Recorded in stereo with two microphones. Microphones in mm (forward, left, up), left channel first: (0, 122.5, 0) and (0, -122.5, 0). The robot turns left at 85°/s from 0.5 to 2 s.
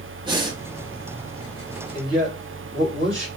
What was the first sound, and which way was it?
Breathing, 20° right (ahead or behind).